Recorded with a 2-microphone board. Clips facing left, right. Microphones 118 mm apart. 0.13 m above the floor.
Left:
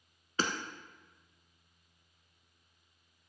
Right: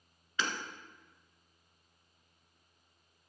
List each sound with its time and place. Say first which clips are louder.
0.4 s hammering: left 3 dB; 40° left (ahead or behind), 1.1 m